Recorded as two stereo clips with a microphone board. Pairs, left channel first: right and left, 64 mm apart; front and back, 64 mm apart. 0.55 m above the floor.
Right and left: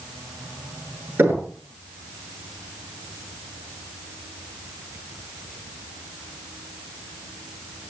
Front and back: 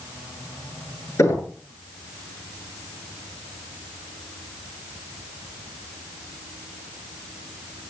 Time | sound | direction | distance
1.2 | knocking | 40° left | 8 m